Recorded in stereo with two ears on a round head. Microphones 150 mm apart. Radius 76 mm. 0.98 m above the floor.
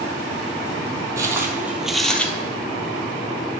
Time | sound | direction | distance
1.2 | footsteps | 20° right (ahead or behind) | 1.2 m